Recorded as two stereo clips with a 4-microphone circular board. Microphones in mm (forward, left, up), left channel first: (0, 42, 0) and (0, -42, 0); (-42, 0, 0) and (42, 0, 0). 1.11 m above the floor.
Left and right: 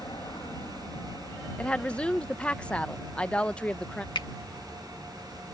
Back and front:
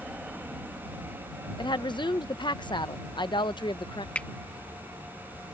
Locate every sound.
0.0 s an aircraft: 75° left; by 5.5 s straight ahead
1.6 s a woman speaking: 165° left
4.2 s a finger snap: 105° left